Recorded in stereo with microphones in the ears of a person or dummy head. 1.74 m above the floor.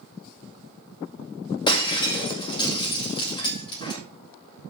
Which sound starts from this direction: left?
Breaking glass, at 1.7 s.